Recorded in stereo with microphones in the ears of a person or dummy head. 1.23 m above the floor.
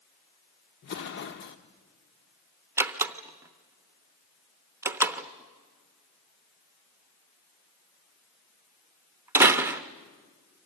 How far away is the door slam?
About 0.8 m.